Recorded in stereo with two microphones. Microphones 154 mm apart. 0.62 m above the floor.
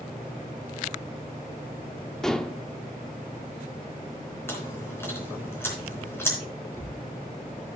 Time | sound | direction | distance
2.2 | dishes clattering | 5° left (ahead or behind) | 0.6 m
4.5 | chewing | 15° left (ahead or behind) | 3.5 m
6.7 | a cupboard door | 20° left (ahead or behind) | 4.5 m